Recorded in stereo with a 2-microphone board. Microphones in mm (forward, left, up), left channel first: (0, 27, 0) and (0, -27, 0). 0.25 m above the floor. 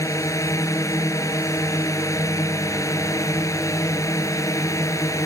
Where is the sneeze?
No sneeze in this recording.